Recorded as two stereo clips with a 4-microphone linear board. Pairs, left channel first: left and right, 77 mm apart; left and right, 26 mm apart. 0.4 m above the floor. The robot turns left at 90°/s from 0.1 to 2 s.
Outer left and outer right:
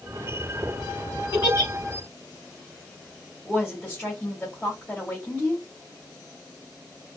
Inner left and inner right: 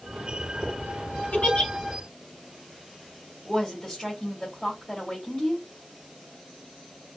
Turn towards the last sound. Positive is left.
turn(degrees=5)  # may be behind; listen again after turning